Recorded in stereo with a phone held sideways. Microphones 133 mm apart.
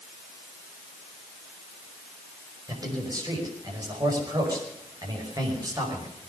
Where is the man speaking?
30° right (ahead or behind), 5.5 m.